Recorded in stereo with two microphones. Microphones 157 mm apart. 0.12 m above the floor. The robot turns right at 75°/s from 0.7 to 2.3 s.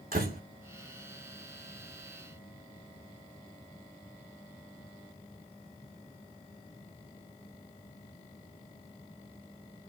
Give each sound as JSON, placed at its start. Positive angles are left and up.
{"t": 0.1, "sound": "a door slam", "side_deg": -70, "distance_m": 5.0}